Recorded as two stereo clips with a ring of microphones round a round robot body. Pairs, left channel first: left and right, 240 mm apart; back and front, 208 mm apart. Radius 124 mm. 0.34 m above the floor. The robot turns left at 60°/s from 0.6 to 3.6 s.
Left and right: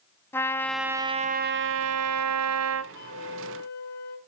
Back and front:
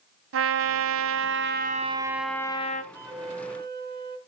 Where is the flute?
80° left, 2.5 m; by 4.2 s 40° left, 2.5 m.